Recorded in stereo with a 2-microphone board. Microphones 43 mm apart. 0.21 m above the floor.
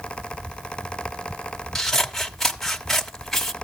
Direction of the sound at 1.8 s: 10° left (ahead or behind).